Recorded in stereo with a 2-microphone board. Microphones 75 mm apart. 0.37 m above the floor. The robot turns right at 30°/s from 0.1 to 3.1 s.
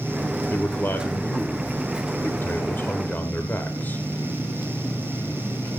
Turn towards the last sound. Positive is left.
turn(degrees=130)